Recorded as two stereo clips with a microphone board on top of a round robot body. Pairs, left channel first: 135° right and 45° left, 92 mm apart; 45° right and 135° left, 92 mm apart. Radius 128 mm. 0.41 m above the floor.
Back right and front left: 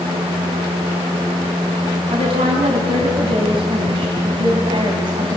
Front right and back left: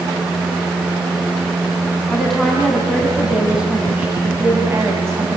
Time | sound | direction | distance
2.1 | a woman speaking | 40° left | 4.5 m